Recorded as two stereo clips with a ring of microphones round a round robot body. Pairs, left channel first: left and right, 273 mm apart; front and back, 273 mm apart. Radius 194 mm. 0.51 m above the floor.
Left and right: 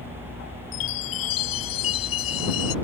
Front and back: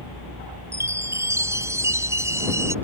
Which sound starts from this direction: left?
A chime, at 0.7 s.